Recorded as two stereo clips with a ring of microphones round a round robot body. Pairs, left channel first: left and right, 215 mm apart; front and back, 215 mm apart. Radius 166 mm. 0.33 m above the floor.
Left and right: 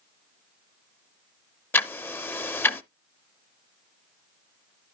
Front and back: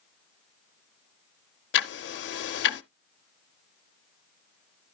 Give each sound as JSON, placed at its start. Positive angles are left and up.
{"t": 1.7, "sound": "ticking", "azimuth_deg": 10, "distance_m": 0.5}